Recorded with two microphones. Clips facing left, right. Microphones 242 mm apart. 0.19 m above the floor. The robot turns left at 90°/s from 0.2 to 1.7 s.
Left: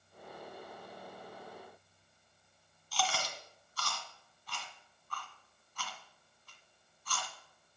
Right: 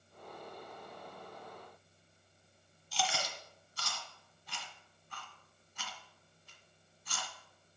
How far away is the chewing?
About 1.7 m.